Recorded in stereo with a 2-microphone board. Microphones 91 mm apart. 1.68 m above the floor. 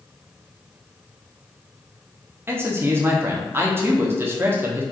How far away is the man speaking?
About 0.7 m.